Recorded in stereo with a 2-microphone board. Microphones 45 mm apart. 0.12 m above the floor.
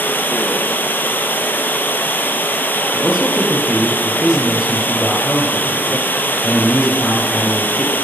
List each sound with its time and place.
0.0 s running water: 45° left (ahead or behind), 1.5 m
2.9 s a man speaking: 10° right (ahead or behind), 3 m